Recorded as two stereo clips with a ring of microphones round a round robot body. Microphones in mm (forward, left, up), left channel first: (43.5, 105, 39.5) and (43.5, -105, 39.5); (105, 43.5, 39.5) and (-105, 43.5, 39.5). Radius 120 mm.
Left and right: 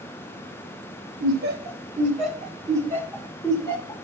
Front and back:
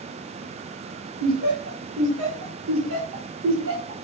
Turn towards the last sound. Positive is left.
turn(degrees=165)